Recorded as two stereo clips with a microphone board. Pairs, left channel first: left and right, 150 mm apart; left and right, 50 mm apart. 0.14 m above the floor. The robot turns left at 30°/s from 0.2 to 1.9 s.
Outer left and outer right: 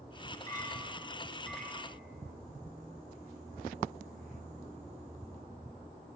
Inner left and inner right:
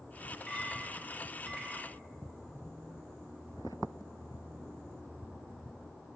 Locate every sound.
0.5 s a clink: 35° left, 1.3 m; by 1.9 s 5° right, 1.3 m